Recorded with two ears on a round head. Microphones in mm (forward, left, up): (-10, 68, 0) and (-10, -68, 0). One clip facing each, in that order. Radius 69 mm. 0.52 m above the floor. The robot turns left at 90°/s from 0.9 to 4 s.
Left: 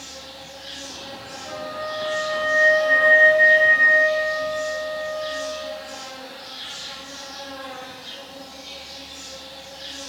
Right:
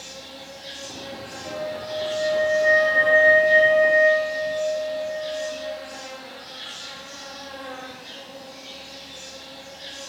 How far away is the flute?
About 1.8 m.